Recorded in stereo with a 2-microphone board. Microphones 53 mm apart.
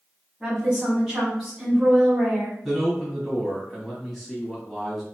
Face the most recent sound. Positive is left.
turn(degrees=5)  # may be behind; listen again after turning